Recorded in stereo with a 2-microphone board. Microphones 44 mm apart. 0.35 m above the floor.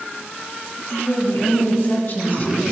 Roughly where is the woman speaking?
Left.